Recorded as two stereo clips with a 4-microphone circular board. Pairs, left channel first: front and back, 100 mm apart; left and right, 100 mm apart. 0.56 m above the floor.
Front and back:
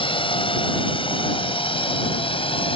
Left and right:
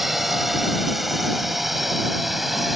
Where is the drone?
Straight ahead.